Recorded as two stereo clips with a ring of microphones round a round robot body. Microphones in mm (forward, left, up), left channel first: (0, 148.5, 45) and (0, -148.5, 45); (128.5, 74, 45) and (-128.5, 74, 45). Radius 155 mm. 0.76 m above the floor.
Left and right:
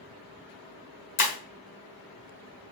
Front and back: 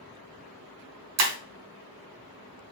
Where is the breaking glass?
160° left, 1.3 m.